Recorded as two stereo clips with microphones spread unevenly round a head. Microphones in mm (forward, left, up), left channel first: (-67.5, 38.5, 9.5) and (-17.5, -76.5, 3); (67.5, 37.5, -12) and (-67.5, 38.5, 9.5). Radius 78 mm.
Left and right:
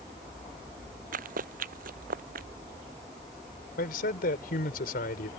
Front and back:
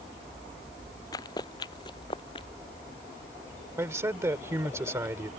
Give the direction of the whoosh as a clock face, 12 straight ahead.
No whoosh in this recording.